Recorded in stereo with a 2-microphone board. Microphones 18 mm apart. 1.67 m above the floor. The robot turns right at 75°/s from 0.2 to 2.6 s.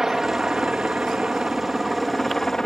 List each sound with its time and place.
0.0 s a helicopter: 145° right; by 2.7 s 35° left